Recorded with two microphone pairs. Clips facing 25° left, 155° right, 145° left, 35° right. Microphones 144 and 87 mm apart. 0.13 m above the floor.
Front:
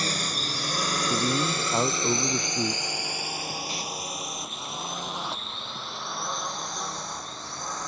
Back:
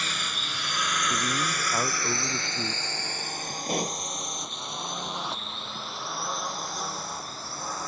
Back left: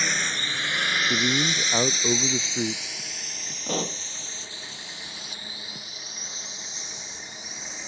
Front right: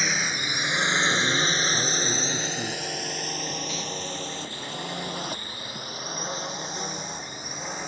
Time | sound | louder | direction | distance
0.0 | a drone | front 5 dB, even | 50° left | ?
1.1 | a man speaking | front 4 dB, even | 95° left | ?
3.7 | a pop | back 6 dB, back left 3 dB | 175° left | ?